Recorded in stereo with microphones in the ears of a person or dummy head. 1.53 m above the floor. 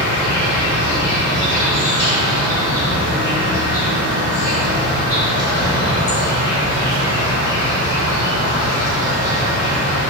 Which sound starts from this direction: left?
An insect, at 0.0 s.